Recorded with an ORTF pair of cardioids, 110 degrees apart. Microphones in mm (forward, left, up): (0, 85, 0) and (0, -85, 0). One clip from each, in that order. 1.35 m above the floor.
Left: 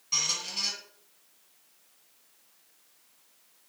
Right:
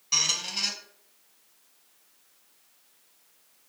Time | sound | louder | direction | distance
0.1 | a squeak | right 3 dB | 25° right | 0.8 m